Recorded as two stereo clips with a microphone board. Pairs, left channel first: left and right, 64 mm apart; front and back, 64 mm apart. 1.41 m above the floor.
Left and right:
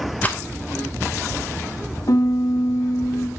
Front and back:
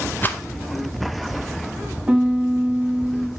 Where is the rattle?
45° left, 0.7 m.